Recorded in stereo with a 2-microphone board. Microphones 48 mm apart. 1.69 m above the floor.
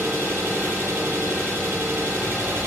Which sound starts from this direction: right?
An engine running, at 0.0 s.